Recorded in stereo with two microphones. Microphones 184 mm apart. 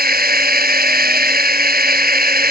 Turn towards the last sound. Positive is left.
turn(degrees=-55)  # may be behind; listen again after turning